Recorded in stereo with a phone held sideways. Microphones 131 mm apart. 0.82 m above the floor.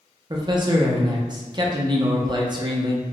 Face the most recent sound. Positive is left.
turn(degrees=-35)  # may be behind; listen again after turning